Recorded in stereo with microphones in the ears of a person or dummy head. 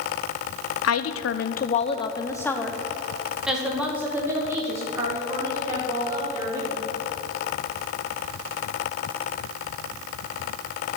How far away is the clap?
I don't hear a clap.